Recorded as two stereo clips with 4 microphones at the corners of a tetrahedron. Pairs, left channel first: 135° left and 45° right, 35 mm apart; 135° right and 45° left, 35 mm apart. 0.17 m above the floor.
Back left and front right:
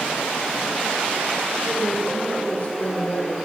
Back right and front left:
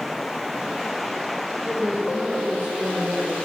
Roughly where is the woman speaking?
Left.